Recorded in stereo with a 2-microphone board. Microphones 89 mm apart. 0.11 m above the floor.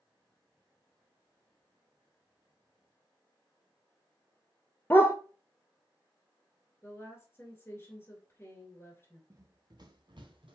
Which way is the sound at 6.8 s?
25° left (ahead or behind).